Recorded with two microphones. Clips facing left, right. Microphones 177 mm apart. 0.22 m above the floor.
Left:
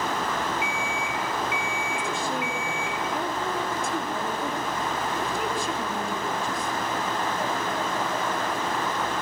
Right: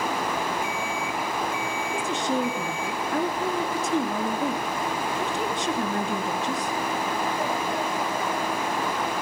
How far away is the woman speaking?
About 3 m.